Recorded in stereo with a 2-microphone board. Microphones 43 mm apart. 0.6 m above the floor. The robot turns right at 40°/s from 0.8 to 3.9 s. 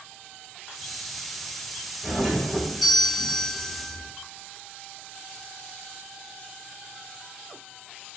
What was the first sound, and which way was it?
A doorbell, 40° right.